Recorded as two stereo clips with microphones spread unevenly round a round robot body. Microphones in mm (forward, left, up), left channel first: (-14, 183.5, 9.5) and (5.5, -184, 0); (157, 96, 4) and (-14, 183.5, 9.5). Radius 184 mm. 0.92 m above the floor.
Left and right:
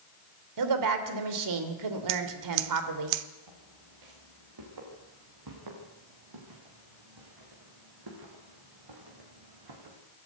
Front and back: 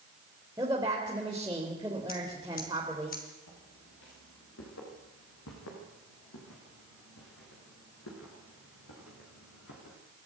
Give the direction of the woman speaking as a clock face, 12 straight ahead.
4 o'clock.